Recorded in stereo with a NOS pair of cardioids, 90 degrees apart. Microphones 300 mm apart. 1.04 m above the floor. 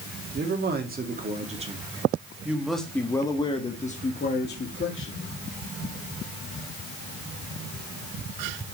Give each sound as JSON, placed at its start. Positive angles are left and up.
{"t": 0.3, "sound": "a man speaking", "azimuth_deg": -35, "distance_m": 2.5}